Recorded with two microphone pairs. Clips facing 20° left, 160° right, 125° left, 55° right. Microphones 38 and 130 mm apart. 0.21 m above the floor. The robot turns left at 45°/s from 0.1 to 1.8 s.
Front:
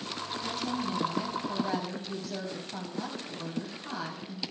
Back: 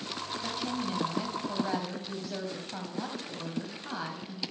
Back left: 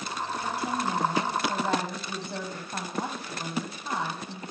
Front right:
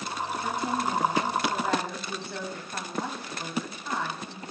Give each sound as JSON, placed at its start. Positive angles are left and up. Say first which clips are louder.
{"t": 0.4, "sound": "a woman speaking", "louder": "front 1 dB, front right 1 dB", "azimuth_deg": -160, "distance_m": 1.1}